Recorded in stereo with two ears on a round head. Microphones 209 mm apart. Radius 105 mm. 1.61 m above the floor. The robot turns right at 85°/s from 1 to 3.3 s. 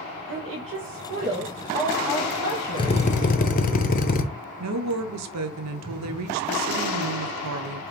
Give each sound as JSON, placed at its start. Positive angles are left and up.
{"t": 0.3, "sound": "a woman speaking", "azimuth_deg": -55, "distance_m": 2.5}
{"t": 2.8, "sound": "a drill", "azimuth_deg": 35, "distance_m": 0.7}
{"t": 4.6, "sound": "a woman speaking", "side_deg": -75, "distance_m": 0.6}